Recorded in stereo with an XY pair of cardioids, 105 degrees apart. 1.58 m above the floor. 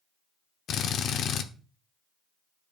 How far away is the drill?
About 0.8 m.